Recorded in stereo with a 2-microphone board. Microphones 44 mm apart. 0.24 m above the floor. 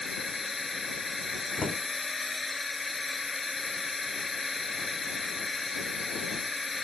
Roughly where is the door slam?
Centre.